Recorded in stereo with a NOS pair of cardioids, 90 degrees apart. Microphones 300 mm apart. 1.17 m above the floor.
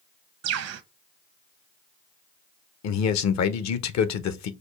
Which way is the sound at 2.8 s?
65° left.